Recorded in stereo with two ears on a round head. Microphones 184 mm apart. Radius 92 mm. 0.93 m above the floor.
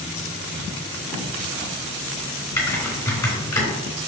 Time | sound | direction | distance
1.1 | writing | 25° left (ahead or behind) | 3.5 m
2.6 | typing on a keyboard | 15° left (ahead or behind) | 3.5 m